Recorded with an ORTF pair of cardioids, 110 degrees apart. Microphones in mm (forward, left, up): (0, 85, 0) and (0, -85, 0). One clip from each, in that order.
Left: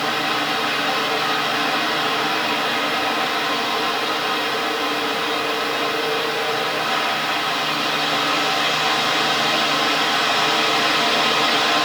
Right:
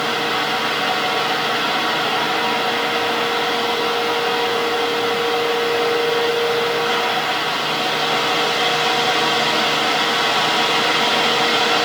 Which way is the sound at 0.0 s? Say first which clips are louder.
Right 1 dB; 10° right.